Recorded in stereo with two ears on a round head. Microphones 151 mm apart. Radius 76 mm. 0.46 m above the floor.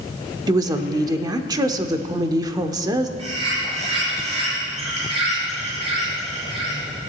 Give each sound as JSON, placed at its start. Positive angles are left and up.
{"t": 0.5, "sound": "a woman speaking", "side_deg": -25, "distance_m": 0.8}
{"t": 3.2, "sound": "a bird", "side_deg": -35, "distance_m": 6.5}